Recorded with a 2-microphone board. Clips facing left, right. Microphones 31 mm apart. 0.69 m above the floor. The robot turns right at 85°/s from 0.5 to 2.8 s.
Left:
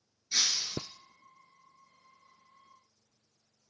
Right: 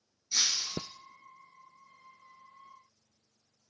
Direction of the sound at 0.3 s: 35° left (ahead or behind).